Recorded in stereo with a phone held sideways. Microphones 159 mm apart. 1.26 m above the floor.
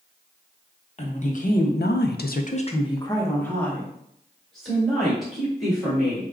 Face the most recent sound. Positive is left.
turn(degrees=-5)  # may be behind; listen again after turning